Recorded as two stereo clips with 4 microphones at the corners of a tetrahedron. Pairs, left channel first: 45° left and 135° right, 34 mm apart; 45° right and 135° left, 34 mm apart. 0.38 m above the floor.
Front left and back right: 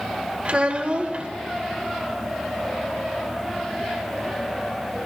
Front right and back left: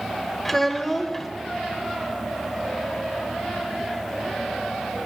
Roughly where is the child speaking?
Behind right.